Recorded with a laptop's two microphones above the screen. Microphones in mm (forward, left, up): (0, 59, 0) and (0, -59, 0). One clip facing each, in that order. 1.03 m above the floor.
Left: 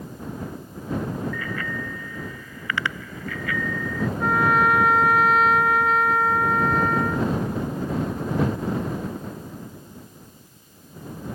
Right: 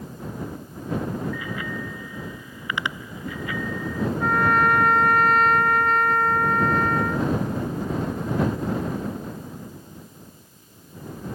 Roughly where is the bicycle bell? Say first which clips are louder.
Left 1 dB; centre.